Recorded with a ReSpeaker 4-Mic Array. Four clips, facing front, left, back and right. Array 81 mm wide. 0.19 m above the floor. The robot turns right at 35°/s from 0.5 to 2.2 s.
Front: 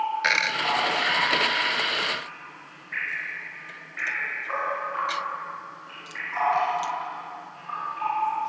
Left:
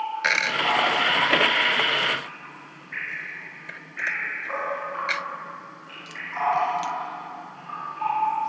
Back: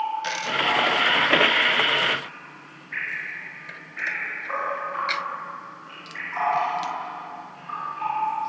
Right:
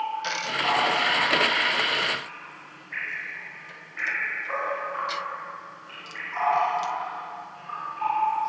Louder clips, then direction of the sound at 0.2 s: Left 3 dB, even; 55° left.